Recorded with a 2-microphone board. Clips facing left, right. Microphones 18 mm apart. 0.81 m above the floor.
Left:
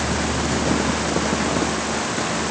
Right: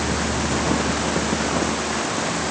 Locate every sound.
Only background noise.